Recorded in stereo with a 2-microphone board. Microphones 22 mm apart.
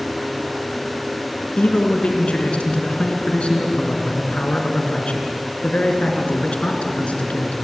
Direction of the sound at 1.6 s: 55° left (ahead or behind).